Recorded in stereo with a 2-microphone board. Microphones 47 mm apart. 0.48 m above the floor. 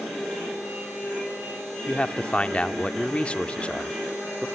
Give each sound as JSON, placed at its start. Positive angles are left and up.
{"t": 1.9, "sound": "a man speaking", "side_deg": 25, "distance_m": 1.0}